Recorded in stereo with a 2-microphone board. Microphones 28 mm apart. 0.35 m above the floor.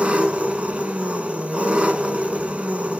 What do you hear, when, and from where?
0.0 s an engine running: 45° right (ahead or behind), 1.4 m